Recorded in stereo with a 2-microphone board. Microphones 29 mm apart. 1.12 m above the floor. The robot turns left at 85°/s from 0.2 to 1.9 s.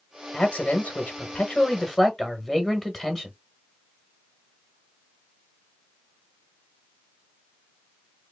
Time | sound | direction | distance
0.3 | a man speaking | 145° left | 1.5 m